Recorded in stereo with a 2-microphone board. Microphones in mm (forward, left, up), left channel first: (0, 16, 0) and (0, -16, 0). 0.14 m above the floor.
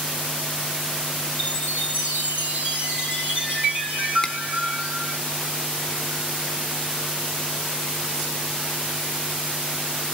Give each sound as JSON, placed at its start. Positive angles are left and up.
{"t": 1.4, "sound": "a chime", "side_deg": -50, "distance_m": 3.0}
{"t": 4.2, "sound": "a finger snap", "side_deg": 20, "distance_m": 0.9}